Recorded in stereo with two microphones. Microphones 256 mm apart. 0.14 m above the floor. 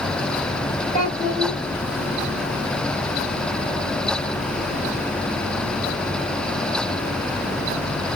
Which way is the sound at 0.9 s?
30° left (ahead or behind).